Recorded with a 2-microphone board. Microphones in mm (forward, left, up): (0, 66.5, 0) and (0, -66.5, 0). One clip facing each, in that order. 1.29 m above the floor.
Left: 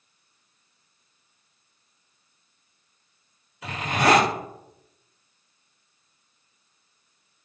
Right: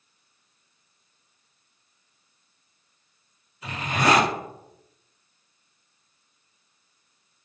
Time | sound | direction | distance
3.6 | a zipper | 80° left | 1.8 m